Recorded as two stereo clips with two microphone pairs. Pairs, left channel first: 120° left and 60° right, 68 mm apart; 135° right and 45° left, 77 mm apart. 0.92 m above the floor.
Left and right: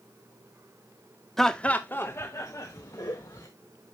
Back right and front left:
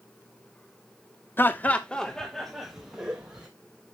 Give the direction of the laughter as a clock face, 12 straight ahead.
5 o'clock.